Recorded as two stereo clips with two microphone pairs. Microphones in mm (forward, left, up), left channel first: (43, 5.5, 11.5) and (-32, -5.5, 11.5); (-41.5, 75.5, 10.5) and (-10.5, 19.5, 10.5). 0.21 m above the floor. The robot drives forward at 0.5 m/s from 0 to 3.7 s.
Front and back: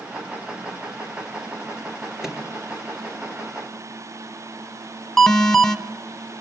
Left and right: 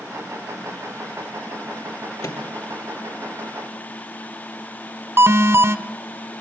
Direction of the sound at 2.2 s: 105° left.